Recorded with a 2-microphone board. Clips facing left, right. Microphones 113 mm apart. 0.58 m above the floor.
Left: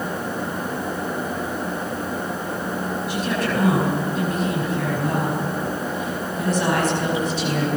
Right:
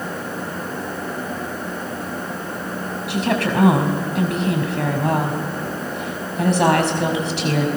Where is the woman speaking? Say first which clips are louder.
Right 5 dB; 75° right (ahead or behind), 4.5 m.